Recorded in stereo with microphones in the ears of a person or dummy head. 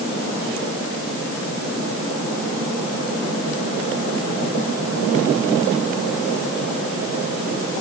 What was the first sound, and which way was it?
Only background noise.